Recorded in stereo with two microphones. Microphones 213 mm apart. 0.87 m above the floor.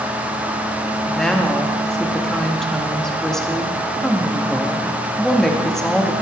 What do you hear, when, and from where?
1.1 s a woman speaking: centre (ahead or behind), 0.9 m